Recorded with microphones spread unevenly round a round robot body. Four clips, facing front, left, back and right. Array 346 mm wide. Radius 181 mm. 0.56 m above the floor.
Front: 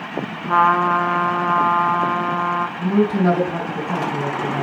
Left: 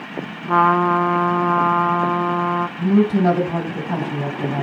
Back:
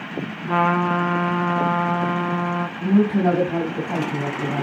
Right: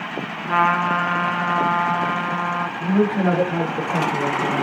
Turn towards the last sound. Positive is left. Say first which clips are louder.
# left 3 dB, back 1 dB
turn(degrees=85)